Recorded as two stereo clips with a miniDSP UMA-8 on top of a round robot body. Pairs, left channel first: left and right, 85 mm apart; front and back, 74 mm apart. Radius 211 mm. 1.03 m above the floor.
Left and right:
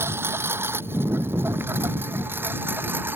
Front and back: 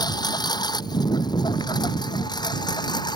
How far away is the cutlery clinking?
No cutlery clinking in this recording.